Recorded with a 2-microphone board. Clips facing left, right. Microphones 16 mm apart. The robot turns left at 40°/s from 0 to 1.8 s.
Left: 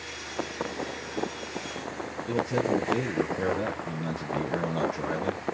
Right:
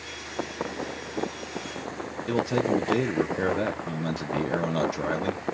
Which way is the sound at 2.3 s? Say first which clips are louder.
Right 2 dB; 40° right (ahead or behind).